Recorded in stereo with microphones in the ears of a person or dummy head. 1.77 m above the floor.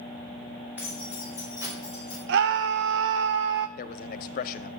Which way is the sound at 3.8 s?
45° left (ahead or behind).